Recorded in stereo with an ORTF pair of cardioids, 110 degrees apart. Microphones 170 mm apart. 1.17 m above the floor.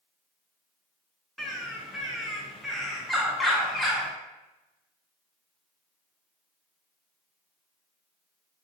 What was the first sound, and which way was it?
A bird, straight ahead.